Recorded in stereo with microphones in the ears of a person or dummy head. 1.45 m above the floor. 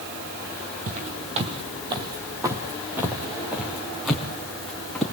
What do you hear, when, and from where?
0.9 s footsteps: 40° right (ahead or behind), 2.5 m; by 5.0 s 10° left (ahead or behind), 4.5 m